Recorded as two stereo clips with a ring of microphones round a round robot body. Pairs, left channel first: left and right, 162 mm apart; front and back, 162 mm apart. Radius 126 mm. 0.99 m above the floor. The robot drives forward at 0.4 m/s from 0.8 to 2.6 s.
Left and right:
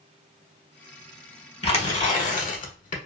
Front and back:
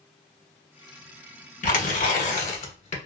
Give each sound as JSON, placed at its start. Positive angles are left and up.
{"t": 1.6, "sound": "tearing paper", "azimuth_deg": 35, "distance_m": 1.3}